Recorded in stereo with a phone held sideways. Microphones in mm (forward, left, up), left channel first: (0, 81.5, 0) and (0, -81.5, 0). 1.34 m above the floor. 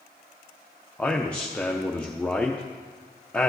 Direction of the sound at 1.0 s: 5° left (ahead or behind).